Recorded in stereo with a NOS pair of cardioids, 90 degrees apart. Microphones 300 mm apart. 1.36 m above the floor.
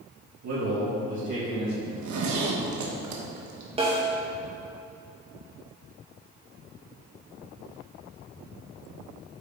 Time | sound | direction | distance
0.4 | a man speaking | 60° right | 2.5 m
1.9 | a zipper | 70° right | 1.3 m
3.8 | a snare drum | 20° right | 2 m